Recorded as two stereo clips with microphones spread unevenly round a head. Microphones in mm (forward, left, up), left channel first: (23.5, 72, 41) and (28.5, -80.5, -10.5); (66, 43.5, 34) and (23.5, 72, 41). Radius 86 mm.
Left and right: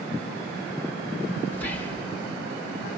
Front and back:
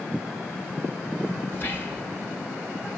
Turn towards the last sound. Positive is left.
turn(degrees=10)